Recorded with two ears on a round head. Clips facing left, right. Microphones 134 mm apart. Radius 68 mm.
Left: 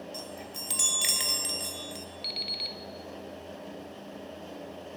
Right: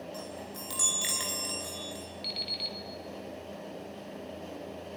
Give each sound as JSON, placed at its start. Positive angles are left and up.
{"t": 0.1, "sound": "a chime", "side_deg": 25, "distance_m": 3.0}
{"t": 2.2, "sound": "an alarm clock", "side_deg": 5, "distance_m": 2.0}